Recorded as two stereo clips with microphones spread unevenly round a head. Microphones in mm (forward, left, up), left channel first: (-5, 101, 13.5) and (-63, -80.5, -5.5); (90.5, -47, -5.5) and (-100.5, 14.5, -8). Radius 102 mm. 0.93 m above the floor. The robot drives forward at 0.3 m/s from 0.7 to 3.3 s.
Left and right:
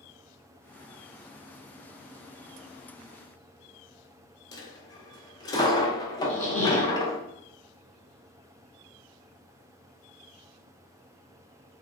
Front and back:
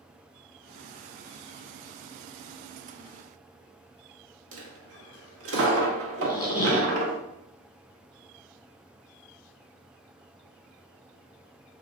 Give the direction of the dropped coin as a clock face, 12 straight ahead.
7 o'clock.